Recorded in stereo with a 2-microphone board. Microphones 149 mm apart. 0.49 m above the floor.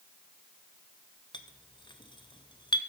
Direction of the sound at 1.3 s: 35° left (ahead or behind).